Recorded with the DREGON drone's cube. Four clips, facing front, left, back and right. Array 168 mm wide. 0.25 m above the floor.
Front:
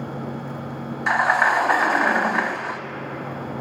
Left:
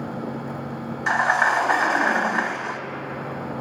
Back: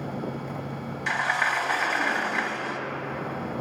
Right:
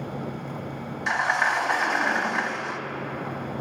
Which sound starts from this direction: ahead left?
A sliding door, at 1.1 s.